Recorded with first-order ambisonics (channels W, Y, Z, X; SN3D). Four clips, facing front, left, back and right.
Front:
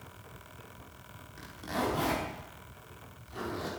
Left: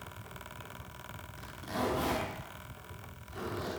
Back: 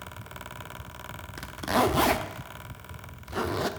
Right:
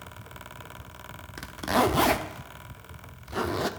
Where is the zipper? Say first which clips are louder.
Right 12 dB, back 9 dB; 130° right, 1.0 m.